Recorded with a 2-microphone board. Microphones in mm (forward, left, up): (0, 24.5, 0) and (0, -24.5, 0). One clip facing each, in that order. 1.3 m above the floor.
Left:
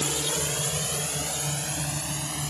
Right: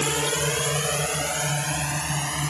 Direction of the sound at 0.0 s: 50° right (ahead or behind).